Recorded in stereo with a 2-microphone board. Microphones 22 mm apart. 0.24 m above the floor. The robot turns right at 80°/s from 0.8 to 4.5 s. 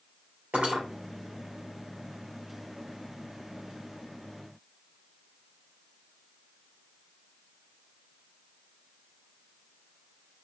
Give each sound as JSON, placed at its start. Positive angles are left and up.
{"t": 0.5, "sound": "cutlery clinking", "side_deg": -70, "distance_m": 3.0}